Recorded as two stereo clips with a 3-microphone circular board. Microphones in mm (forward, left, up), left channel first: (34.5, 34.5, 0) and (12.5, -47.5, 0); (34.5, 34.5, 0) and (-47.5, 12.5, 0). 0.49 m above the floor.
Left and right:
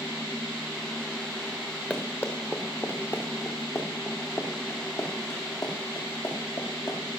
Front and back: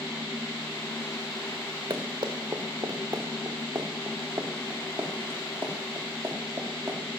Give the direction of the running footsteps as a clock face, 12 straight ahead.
7 o'clock.